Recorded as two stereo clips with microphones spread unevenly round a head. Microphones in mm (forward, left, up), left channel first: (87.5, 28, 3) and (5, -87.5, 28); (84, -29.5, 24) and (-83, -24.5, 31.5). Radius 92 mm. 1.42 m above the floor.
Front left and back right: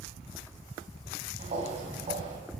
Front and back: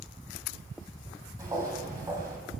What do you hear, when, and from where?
1.4 s footsteps: 115° right, 2.5 m